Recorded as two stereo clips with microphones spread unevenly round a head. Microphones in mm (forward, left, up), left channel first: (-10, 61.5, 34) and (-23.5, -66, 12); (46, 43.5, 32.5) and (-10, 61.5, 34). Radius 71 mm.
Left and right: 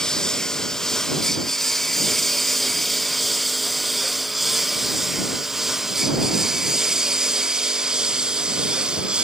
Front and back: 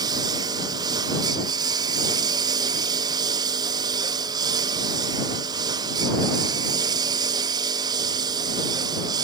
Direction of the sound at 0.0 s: 170° left.